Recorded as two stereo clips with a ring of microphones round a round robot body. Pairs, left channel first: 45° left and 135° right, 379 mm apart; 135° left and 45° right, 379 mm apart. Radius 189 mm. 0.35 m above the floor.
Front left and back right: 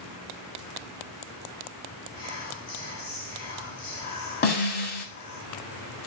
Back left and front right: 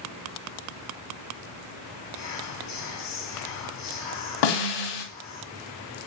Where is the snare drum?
110° left, 1.1 m.